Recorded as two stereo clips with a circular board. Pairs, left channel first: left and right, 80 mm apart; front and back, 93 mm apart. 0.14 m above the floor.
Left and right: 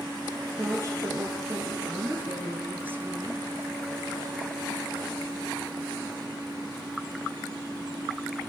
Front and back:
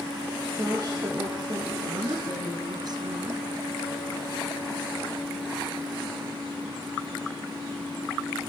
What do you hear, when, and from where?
0.5 s a woman speaking: 135° right, 3 m
1.9 s a woman speaking: 150° right, 2.5 m